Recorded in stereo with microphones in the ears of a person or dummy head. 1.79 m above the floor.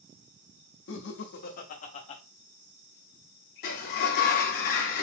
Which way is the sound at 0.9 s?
80° left.